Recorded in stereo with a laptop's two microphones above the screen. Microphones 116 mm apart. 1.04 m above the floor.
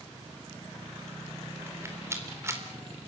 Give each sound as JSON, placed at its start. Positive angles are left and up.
{"t": 1.7, "sound": "a rattle", "side_deg": -25, "distance_m": 4.0}